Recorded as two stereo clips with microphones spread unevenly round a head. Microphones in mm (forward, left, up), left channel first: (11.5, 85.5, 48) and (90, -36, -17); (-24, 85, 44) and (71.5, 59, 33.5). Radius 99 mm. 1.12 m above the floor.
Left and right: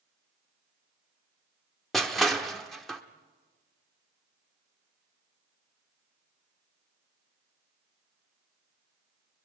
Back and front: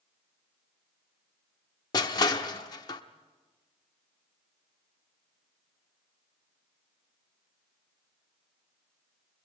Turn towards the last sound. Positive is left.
turn(degrees=180)